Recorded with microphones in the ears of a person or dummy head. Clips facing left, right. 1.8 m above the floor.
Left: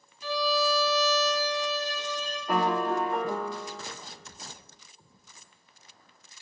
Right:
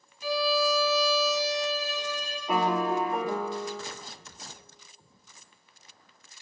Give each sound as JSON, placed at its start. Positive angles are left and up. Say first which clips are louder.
{"t": 0.2, "sound": "a violin", "louder": "right 1 dB", "side_deg": -5, "distance_m": 2.0}
{"t": 2.5, "sound": "a piano", "louder": "even", "side_deg": 0, "distance_m": 0.7}